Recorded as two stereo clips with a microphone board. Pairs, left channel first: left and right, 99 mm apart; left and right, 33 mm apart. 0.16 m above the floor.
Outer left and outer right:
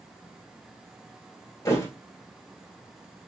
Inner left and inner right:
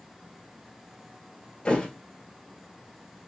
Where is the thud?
30° left (ahead or behind), 1.6 m.